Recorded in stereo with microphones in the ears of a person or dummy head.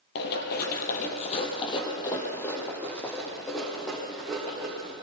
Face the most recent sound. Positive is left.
turn(degrees=0)  # may be behind; listen again after turning